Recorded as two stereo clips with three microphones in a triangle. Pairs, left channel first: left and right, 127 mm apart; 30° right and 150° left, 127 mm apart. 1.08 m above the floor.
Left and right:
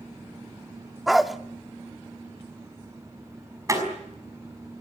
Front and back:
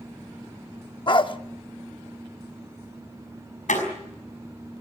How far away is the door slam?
About 5.5 m.